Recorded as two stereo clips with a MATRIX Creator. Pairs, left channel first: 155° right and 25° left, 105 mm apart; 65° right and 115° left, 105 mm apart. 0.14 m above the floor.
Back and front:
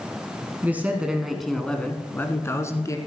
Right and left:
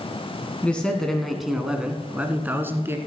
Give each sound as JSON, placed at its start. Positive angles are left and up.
{"t": 0.6, "sound": "a man speaking", "azimuth_deg": -10, "distance_m": 1.2}